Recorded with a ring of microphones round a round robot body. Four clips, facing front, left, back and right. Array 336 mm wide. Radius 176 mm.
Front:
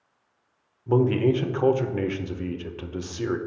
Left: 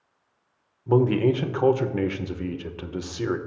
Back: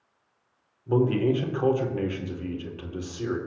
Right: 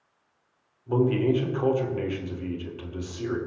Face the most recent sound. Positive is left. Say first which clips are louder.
# left 3 dB, front 2 dB
turn(degrees=65)